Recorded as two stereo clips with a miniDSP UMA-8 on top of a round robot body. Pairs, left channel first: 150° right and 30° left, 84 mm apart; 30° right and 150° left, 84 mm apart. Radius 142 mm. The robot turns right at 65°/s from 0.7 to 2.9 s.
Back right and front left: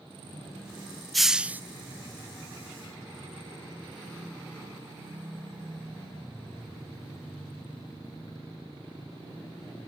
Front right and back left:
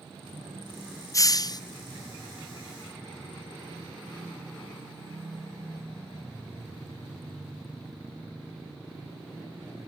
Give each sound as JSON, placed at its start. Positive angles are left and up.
{"t": 1.1, "sound": "a hiss", "azimuth_deg": -60, "distance_m": 0.7}